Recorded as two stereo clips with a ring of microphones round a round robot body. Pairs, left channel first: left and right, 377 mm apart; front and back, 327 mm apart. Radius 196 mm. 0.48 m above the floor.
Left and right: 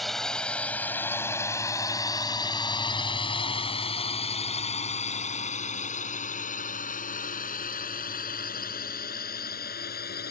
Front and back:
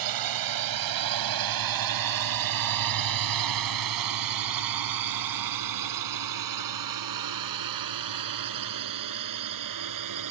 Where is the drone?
Straight behind; by 10.3 s 155° left.